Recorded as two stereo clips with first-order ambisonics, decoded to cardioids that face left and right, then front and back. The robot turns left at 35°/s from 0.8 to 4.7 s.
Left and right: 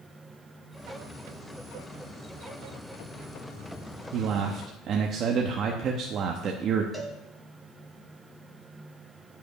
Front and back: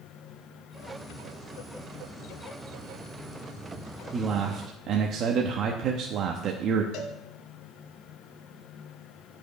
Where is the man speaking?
115° right, 0.7 m; by 6.8 s 135° right, 0.7 m.